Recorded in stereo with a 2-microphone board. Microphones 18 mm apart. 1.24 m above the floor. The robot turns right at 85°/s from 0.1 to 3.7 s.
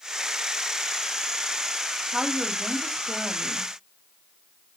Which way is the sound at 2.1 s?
30° right.